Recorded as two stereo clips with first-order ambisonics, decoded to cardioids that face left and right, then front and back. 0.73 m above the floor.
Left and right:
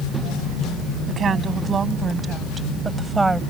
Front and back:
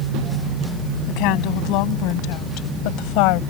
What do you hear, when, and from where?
1.1 s a woman speaking: 25° right; by 3.4 s 5° right